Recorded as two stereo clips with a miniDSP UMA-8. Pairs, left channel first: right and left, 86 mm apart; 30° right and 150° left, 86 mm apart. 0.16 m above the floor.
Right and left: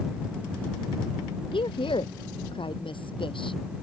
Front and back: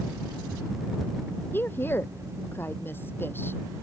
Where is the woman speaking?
95° right.